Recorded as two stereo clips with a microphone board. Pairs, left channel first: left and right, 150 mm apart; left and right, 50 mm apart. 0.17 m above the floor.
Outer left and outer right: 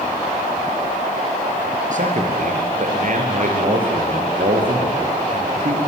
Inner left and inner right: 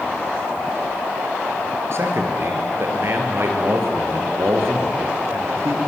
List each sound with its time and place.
1.9 s a man speaking: 60° right (ahead or behind), 3.5 m